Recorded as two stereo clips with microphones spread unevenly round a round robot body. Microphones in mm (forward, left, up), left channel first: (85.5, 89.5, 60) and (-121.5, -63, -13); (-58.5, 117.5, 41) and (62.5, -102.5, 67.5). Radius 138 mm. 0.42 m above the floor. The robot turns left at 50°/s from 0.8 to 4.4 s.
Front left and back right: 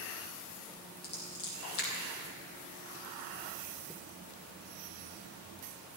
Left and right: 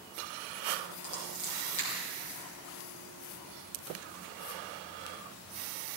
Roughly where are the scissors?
Left.